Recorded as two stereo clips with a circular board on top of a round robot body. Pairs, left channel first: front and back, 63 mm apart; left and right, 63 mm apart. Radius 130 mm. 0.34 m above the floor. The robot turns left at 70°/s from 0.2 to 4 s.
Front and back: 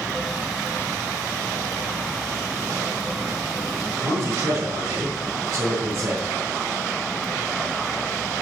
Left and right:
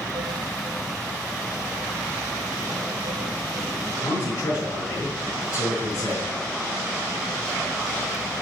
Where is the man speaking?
130° left, 6 m.